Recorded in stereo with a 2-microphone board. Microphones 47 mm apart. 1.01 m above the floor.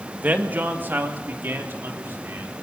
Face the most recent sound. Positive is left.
turn(degrees=-55)  # may be behind; listen again after turning